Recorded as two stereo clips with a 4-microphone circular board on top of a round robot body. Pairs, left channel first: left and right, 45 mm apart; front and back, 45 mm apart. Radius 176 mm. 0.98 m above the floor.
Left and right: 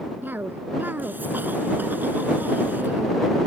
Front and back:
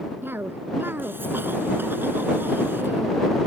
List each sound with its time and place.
0.2 s a cough: 140° right